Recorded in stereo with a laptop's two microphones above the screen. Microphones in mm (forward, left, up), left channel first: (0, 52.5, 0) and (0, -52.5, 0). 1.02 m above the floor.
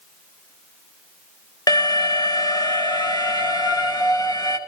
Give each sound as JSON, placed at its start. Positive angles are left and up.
{"t": 1.7, "sound": "an alarm", "side_deg": 40, "distance_m": 1.2}